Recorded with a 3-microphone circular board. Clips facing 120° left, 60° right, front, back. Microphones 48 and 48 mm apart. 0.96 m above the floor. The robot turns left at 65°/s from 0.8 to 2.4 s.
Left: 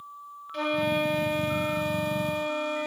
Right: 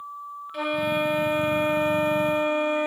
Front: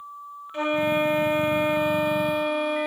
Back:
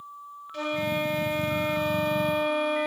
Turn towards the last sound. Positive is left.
turn(degrees=-85)